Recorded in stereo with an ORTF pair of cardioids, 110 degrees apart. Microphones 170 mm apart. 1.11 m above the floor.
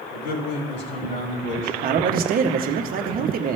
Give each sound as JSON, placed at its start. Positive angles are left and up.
{"t": 0.1, "sound": "a man speaking", "azimuth_deg": 70, "distance_m": 3.0}
{"t": 1.8, "sound": "a man speaking", "azimuth_deg": -55, "distance_m": 1.1}